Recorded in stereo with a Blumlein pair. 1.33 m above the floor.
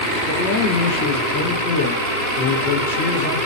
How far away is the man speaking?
About 1.5 m.